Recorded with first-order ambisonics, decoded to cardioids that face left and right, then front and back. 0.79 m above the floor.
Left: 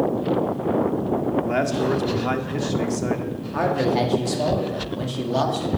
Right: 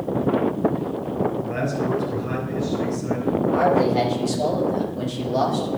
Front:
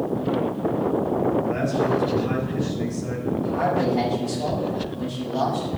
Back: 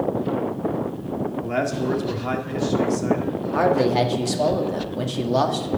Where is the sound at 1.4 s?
125° left, 1.7 m.